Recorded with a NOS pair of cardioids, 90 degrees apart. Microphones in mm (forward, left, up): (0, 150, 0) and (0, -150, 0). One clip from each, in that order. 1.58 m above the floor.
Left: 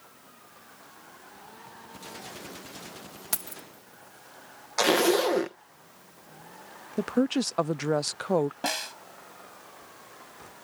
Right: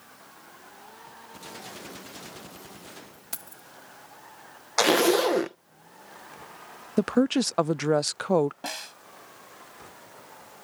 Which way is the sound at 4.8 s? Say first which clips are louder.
Right 2 dB; 25° right.